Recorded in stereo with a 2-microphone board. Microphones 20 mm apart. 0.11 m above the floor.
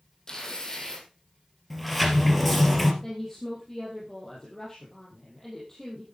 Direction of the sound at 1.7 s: 5° left (ahead or behind).